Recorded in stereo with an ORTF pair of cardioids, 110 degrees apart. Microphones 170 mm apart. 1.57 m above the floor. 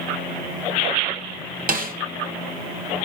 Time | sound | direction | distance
1.7 | a snare drum | 55° right | 1.8 m